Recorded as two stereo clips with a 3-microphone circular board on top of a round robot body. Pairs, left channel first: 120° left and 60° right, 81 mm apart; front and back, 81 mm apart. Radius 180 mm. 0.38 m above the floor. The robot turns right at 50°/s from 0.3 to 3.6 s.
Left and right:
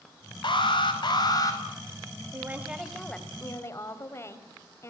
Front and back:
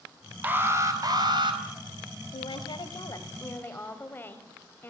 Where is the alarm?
110° left, 5 m; by 1.6 s 170° left, 5 m.